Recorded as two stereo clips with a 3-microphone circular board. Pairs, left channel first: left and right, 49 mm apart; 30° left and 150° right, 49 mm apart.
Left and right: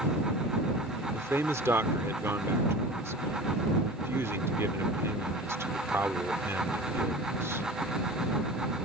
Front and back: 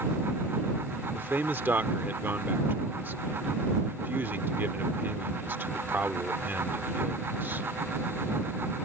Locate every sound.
1.1 s a man speaking: 110° right